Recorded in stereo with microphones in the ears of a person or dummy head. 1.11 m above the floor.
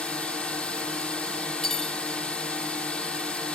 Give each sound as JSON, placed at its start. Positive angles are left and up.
{"t": 0.0, "sound": "a drone", "side_deg": 10}
{"t": 1.6, "sound": "cutlery clinking", "side_deg": 5}